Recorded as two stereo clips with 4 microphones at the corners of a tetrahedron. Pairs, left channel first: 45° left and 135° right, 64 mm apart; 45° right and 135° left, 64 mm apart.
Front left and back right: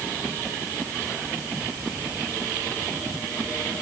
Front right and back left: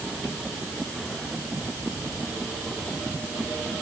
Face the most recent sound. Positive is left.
No sound to turn to.